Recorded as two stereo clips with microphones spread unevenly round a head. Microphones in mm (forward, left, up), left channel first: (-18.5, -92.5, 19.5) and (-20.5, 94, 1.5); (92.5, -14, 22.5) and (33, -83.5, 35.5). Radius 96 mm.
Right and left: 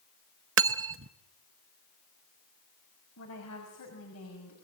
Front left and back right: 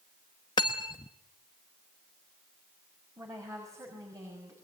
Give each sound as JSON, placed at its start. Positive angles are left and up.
{"t": 0.6, "sound": "cutlery clinking", "azimuth_deg": 115, "distance_m": 0.7}
{"t": 3.2, "sound": "a woman speaking", "azimuth_deg": -75, "distance_m": 6.0}